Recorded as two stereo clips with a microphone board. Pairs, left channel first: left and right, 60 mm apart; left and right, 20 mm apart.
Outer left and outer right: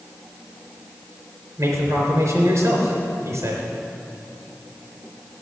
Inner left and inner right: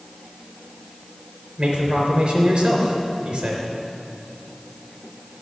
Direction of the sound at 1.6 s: 50° right (ahead or behind).